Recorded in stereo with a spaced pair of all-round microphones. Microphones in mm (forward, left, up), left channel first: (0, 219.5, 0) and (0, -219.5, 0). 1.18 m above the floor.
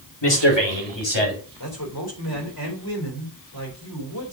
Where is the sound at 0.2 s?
70° left (ahead or behind), 3.5 m; by 1.4 s 80° left, 4.5 m.